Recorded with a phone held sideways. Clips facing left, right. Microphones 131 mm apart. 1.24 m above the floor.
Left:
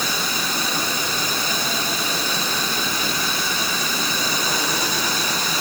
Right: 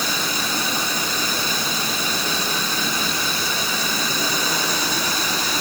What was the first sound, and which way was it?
Only background noise.